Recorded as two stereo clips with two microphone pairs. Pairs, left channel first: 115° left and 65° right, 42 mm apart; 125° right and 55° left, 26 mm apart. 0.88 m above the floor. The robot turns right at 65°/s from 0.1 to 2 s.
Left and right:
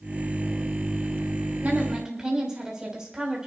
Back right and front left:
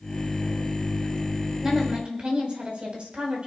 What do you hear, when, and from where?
1.6 s a woman speaking: 15° right, 4.5 m; by 3.5 s 10° left, 4.5 m